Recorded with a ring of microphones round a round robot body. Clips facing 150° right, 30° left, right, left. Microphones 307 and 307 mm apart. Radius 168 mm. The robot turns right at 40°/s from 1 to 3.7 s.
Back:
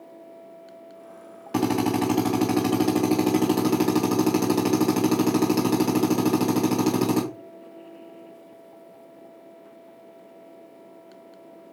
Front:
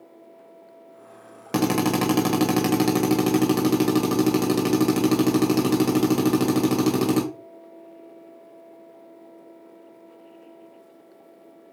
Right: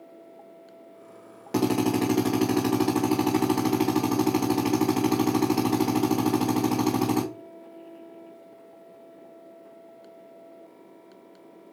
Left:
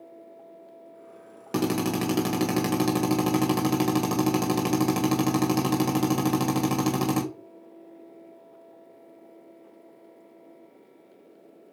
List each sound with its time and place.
1.5 s a drill: 25° left, 2 m; by 7.2 s 110° left, 2 m